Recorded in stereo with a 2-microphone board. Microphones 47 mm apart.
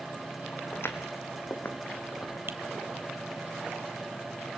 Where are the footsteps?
55° left (ahead or behind), 1.9 m; by 2.4 s 40° left (ahead or behind), 2.5 m.